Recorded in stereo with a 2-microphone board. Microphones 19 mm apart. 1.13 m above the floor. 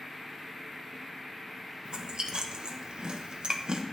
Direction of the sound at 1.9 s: 55° right (ahead or behind).